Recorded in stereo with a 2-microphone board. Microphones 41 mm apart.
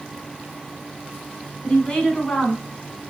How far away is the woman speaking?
About 1.2 m.